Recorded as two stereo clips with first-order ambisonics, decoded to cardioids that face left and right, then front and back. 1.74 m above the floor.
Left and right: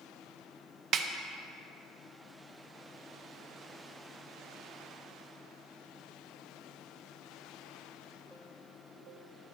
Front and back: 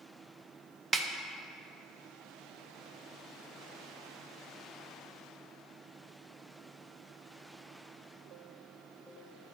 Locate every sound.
0.9 s a snare drum: 120° right, 0.7 m